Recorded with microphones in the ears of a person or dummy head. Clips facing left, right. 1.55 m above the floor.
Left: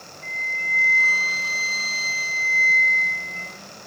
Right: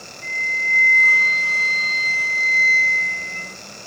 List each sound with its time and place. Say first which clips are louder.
0.2 s a flute: right 4 dB; 5° left (ahead or behind), 1.9 m